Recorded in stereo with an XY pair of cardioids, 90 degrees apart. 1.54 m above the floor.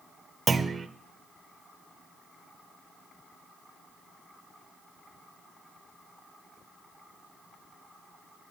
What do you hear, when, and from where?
0.5 s a clunk: 40° right, 0.6 m